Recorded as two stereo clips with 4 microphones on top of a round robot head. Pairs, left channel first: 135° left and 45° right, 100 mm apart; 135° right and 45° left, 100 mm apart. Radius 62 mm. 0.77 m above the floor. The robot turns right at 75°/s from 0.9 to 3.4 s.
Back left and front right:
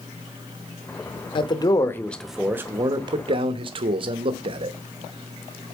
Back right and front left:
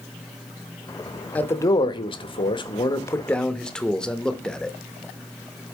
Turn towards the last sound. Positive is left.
turn(degrees=-50)